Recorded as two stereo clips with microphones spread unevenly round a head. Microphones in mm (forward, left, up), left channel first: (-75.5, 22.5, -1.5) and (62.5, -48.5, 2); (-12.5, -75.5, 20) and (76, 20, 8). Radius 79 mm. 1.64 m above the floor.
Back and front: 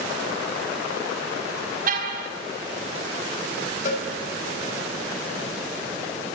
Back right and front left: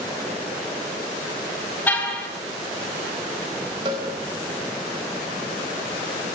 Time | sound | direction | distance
1.9 | a car horn | 60° right | 4.5 m
3.9 | a cowbell | 110° left | 5 m